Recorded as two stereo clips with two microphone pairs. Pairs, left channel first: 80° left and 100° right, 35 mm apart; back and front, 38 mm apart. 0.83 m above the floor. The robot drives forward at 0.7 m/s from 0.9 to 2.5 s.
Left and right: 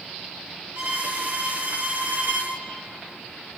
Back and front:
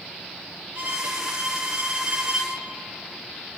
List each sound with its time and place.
0.8 s a violin: 55° right, 4.5 m; by 2.5 s 65° right, 4 m